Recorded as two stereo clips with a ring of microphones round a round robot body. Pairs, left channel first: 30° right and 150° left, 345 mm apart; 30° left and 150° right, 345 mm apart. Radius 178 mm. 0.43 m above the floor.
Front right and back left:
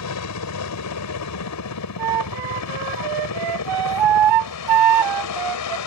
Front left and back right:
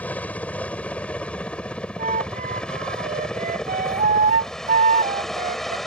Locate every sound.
0.0 s a helicopter: 55° right; by 5.9 s 60° right
2.0 s a flute: 140° left